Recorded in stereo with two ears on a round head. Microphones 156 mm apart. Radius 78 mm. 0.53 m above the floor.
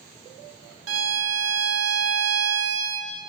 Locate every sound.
0.9 s a violin: 85° right, 0.7 m